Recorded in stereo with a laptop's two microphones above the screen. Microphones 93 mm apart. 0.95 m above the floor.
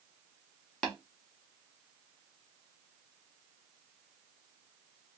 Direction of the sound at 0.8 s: 10° left (ahead or behind).